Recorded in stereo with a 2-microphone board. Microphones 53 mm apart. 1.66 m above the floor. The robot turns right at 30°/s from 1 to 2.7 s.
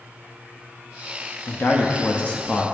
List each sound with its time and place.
1.5 s a man speaking: 130° left, 0.6 m; by 2.6 s 165° left, 0.6 m